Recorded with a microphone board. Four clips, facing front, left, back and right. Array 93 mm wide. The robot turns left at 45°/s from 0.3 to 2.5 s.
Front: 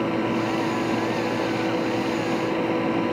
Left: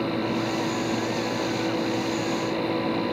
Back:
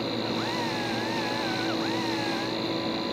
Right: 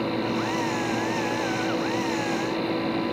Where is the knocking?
No knocking in this recording.